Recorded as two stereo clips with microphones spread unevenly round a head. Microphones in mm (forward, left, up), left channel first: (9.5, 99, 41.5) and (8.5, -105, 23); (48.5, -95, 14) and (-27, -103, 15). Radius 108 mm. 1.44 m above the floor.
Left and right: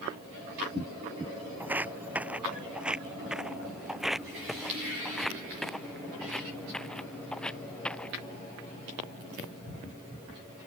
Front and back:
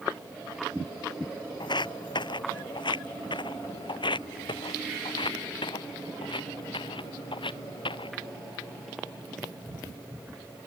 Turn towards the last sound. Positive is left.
turn(degrees=5)